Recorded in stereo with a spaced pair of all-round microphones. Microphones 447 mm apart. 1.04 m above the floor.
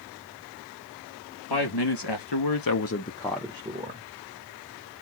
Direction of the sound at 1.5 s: 60° left (ahead or behind).